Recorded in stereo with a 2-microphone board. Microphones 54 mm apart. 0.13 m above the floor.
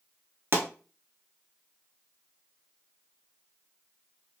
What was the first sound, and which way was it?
A pop, 50° right (ahead or behind).